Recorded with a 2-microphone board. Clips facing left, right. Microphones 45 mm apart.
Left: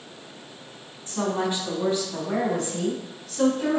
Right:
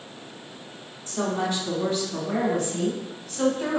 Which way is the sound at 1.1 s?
30° left (ahead or behind).